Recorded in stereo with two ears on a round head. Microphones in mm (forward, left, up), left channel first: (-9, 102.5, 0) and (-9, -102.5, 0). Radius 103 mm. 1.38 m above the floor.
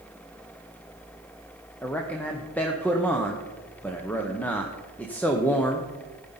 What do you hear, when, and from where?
1.8 s a man speaking: 5° left (ahead or behind), 0.8 m